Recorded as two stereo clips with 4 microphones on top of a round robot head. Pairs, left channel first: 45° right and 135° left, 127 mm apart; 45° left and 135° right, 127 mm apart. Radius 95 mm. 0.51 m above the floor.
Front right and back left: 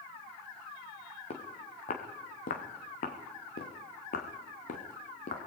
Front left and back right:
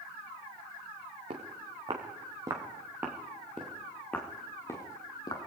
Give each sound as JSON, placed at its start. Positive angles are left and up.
{"t": 1.3, "sound": "footsteps", "azimuth_deg": -85, "distance_m": 3.5}